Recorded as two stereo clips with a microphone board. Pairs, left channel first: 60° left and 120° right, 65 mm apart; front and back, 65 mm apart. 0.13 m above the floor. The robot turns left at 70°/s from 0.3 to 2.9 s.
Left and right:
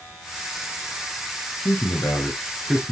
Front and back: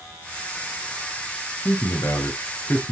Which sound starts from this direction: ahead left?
A man speaking, at 1.6 s.